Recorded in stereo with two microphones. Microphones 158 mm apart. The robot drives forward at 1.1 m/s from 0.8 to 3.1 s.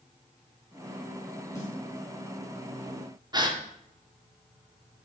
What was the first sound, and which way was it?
A snare drum, 20° left (ahead or behind).